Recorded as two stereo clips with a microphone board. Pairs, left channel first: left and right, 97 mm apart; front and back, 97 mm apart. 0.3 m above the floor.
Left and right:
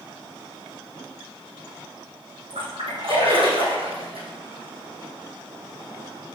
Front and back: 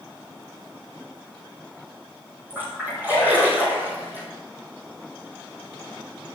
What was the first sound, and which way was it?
A splash, 110° right.